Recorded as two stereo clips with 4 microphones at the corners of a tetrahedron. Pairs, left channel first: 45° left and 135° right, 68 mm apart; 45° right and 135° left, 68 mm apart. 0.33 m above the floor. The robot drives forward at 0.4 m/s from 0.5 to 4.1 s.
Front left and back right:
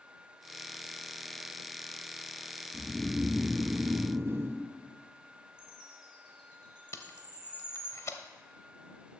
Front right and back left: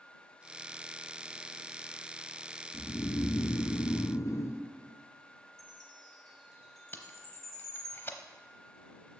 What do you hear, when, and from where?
2.7 s snoring: 35° right, 0.8 m; by 4.6 s 85° right, 0.5 m
5.6 s a chime: 125° right, 4 m
6.9 s tape being pulled: 5° left, 0.7 m